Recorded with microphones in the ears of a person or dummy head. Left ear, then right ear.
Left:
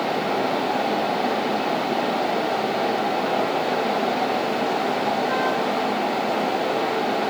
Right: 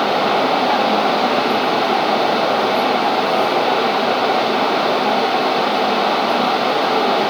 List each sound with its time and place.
Only background noise.